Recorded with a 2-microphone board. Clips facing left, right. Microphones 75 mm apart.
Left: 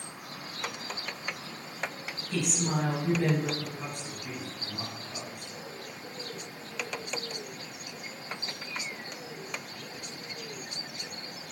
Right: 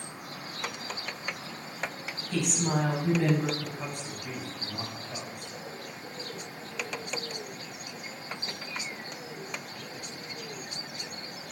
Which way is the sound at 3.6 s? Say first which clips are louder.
Right 1 dB; 65° right (ahead or behind).